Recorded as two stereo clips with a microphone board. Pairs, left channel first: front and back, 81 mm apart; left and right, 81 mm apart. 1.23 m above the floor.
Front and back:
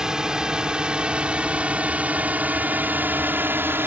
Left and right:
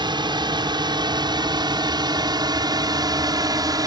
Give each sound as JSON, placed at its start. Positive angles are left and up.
{"t": 0.0, "sound": "a drone", "azimuth_deg": -100}